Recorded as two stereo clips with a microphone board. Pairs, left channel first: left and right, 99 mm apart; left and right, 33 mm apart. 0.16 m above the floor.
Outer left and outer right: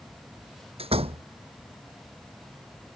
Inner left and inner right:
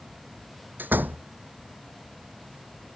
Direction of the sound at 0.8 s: 80° right.